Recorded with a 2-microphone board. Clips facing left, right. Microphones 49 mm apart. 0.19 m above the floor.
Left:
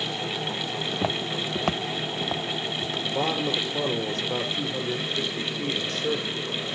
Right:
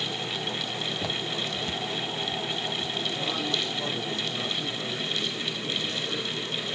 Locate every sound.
0.9 s footsteps: 30° left (ahead or behind), 0.9 m; by 3.0 s 70° left (ahead or behind), 1.2 m
3.0 s a man speaking: 65° left (ahead or behind), 4.5 m